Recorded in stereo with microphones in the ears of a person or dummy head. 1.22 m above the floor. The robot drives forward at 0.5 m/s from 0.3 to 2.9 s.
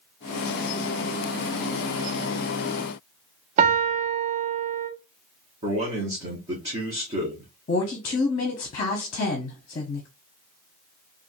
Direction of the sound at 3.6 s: 40° right (ahead or behind).